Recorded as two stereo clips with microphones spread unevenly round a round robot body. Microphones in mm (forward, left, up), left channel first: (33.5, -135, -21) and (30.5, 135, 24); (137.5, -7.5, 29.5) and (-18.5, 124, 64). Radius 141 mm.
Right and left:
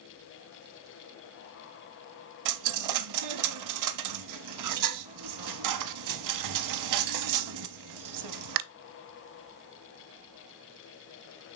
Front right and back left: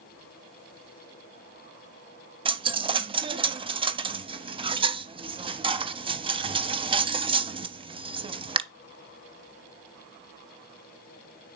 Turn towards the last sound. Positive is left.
turn(degrees=75)